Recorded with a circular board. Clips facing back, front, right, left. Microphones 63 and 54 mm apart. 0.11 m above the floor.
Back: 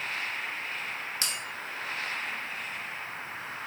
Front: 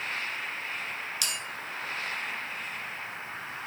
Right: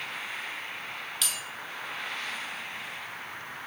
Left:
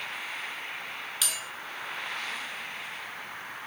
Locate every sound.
1.2 s a bell: 170° left, 0.8 m